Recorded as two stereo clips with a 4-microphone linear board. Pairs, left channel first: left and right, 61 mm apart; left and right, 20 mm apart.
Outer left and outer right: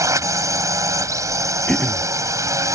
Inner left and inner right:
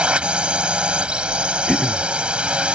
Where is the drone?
65° right (ahead or behind).